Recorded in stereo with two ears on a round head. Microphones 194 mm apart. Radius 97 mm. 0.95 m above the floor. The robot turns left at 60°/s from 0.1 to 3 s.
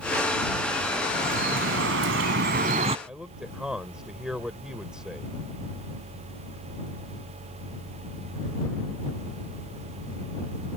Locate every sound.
1.1 s dripping: 40° right; by 3.0 s 145° right
3.1 s a man speaking: 5° right (ahead or behind)